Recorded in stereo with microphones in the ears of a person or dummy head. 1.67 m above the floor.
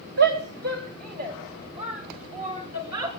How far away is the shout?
About 3.5 m.